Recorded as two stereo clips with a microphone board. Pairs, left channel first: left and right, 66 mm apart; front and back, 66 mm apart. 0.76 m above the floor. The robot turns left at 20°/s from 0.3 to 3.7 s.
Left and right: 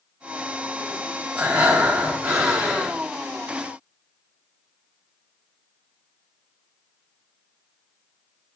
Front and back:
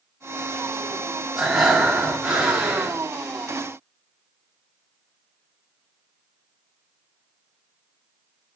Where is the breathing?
110° right, 1.1 m; by 3.0 s 145° right, 1.1 m.